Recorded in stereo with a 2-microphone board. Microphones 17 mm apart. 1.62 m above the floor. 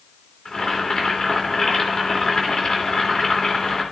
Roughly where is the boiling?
Left.